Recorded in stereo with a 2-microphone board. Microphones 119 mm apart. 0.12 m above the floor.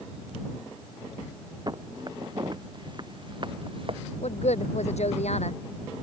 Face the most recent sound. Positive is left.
turn(degrees=65)  # may be behind; listen again after turning